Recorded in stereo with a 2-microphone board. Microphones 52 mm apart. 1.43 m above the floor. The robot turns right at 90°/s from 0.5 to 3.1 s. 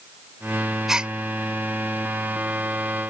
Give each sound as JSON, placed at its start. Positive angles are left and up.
{"t": 0.9, "sound": "a gasp", "side_deg": -5}